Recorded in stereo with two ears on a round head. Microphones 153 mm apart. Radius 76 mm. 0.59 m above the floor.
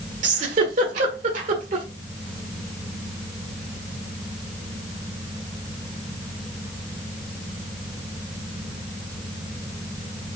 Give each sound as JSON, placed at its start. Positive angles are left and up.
{"t": 0.2, "sound": "a giggle", "side_deg": -50, "distance_m": 1.5}